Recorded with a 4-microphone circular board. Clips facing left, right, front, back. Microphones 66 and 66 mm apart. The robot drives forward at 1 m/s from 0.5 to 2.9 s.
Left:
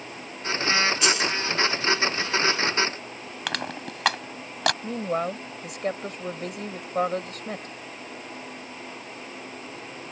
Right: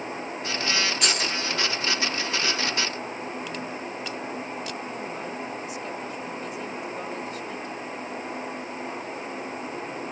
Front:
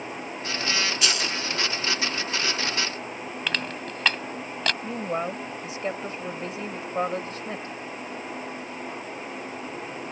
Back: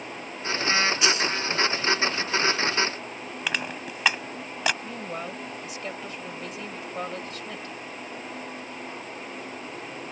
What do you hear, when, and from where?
1.0 s a dropped coin: 115° right; by 1.3 s 125° right
3.5 s crushing: 100° left
4.8 s a woman speaking: 60° left